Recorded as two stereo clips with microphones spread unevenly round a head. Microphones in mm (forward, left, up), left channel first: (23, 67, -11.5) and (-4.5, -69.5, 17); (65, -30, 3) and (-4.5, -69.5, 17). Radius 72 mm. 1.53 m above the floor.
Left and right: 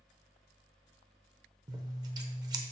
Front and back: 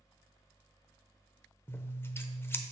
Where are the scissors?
40° right, 0.9 m.